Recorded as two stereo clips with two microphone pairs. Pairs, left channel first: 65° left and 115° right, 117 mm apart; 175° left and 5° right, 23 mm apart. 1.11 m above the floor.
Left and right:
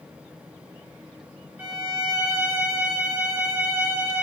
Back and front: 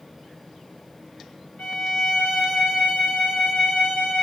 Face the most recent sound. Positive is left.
turn(degrees=175)